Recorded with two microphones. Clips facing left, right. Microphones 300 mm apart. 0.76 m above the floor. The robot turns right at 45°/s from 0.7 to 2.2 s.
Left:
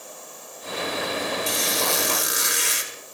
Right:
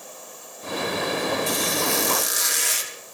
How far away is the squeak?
About 1.7 m.